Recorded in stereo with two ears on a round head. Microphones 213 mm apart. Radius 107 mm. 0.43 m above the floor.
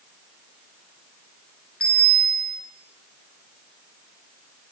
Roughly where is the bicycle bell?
Centre.